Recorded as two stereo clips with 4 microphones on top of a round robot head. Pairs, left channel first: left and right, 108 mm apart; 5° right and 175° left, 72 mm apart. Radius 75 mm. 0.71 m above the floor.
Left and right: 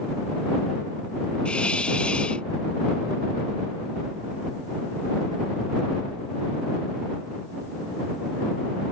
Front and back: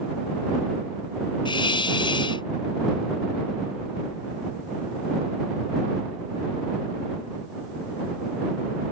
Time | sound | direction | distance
1.4 | a hiss | 5° left | ?